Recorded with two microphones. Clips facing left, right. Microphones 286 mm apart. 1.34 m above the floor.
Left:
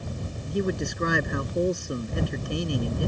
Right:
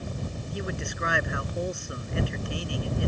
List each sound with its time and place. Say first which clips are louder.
0.5 s a man speaking: left 10 dB; 50° left (ahead or behind)